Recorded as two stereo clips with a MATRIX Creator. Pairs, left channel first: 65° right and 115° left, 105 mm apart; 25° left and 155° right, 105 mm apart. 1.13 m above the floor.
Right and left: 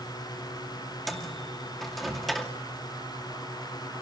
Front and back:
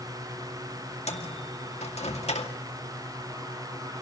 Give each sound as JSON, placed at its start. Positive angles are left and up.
{"t": 1.1, "sound": "a microwave", "azimuth_deg": 20, "distance_m": 2.0}